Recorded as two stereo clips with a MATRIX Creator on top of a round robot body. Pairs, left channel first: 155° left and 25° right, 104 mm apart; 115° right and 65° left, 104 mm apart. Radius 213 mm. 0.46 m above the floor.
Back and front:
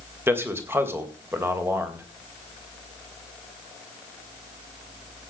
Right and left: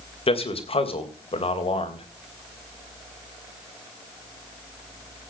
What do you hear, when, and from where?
0.3 s a man speaking: 90° right, 3 m